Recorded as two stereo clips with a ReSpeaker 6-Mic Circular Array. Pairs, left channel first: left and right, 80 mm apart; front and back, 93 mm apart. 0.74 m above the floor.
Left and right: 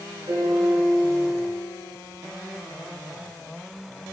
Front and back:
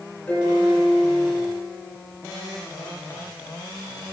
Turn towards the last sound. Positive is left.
turn(degrees=-75)